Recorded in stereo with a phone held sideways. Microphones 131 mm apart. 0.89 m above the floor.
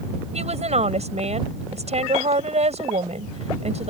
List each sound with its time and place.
0.3 s a woman speaking: 60° right (ahead or behind)